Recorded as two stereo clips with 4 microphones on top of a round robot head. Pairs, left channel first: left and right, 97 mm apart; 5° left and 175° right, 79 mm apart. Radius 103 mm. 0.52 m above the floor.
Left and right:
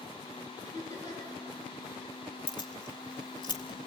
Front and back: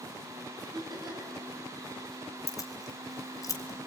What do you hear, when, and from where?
0.6 s laughter: 150° left, 7 m
2.5 s keys jangling: 50° left, 2 m